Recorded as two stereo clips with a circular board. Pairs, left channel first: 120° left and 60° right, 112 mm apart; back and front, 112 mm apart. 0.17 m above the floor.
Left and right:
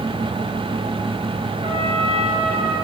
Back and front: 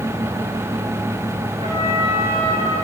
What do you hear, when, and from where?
1.6 s a trumpet: 25° right, 9.5 m